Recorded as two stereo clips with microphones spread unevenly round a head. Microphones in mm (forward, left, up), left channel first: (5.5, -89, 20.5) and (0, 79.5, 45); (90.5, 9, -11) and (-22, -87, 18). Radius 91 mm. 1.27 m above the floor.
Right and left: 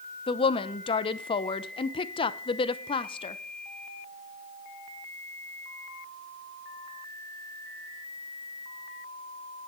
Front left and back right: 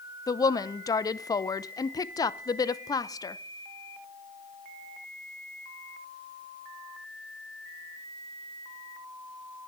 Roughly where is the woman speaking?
Ahead right.